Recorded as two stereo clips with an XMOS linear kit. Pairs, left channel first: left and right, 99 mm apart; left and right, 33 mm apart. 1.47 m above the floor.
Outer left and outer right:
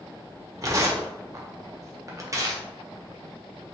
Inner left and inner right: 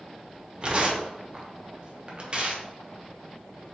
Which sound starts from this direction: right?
Tearing paper, at 0.6 s.